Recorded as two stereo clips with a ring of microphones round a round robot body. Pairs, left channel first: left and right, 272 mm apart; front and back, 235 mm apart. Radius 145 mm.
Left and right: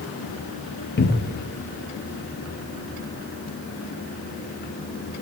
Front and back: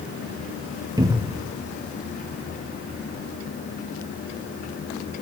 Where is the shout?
I don't hear a shout.